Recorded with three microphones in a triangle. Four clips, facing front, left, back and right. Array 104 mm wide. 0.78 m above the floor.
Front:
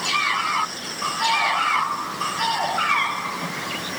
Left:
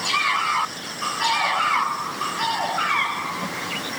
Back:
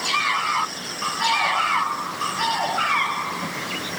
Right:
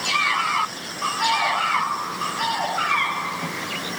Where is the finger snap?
I don't hear a finger snap.